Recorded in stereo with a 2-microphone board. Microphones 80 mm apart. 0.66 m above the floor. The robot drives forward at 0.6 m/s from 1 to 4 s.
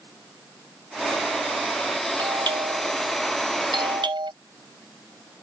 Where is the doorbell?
70° right (ahead or behind); by 4.3 s 75° right (ahead or behind).